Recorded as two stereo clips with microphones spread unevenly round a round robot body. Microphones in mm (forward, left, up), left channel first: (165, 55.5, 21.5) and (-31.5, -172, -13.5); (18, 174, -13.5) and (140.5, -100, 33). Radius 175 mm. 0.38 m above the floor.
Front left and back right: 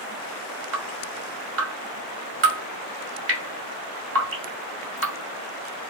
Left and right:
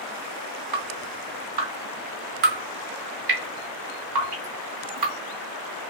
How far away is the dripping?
About 1.9 m.